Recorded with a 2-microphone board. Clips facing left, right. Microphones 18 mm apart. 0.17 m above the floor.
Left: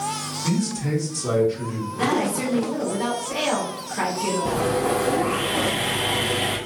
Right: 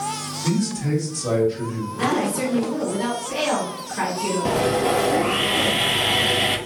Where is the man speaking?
10° left (ahead or behind), 1.6 m; by 1.9 s 15° left (ahead or behind), 1.9 m.